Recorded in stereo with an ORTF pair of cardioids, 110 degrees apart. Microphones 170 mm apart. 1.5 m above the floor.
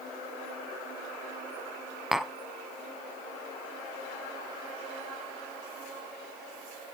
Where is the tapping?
Straight ahead, 0.6 m.